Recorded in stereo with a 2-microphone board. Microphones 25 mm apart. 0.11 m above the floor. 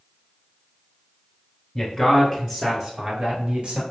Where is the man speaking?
10° left (ahead or behind), 1.3 m; by 3.8 s 45° right (ahead or behind), 1.7 m.